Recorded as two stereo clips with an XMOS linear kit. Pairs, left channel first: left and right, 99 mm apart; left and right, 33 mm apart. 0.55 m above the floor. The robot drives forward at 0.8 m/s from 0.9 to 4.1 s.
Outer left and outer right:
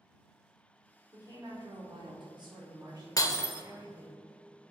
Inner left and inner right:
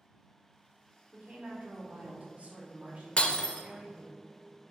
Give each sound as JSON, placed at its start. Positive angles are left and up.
{"t": 1.1, "sound": "a woman speaking", "side_deg": -40, "distance_m": 1.7}
{"t": 3.2, "sound": "breaking glass", "side_deg": 40, "distance_m": 0.6}